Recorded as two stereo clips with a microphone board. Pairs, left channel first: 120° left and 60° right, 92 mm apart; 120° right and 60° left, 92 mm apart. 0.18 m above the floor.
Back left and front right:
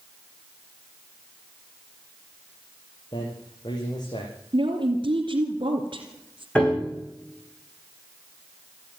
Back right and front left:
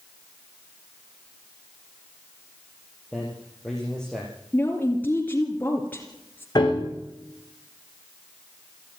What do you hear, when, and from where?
3.1 s a man speaking: 160° left, 4.5 m
4.5 s a woman speaking: 50° right, 2.5 m
6.5 s a piano: 160° right, 7.5 m